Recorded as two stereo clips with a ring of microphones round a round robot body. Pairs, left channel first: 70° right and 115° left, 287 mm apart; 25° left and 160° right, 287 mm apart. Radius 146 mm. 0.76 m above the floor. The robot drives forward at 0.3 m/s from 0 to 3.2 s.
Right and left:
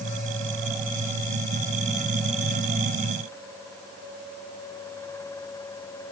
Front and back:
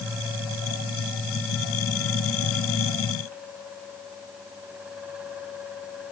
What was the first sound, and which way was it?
Only background noise.